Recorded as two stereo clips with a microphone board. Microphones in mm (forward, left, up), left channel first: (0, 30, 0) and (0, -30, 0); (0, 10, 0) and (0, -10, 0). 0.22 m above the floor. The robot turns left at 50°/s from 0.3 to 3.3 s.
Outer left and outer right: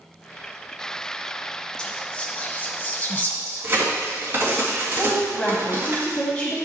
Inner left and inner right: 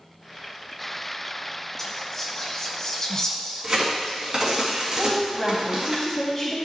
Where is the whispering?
15° left (ahead or behind), 1.1 m; by 4.6 s 25° left (ahead or behind), 1.1 m.